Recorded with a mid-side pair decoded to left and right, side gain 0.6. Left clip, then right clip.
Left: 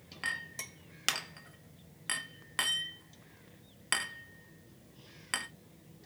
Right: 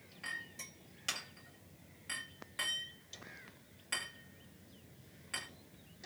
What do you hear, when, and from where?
0.2 s a clink: 60° left, 0.7 m